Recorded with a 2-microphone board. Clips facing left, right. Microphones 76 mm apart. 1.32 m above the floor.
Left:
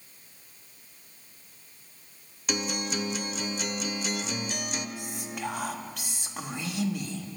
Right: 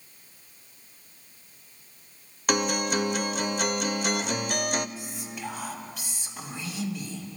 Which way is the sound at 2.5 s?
55° right (ahead or behind).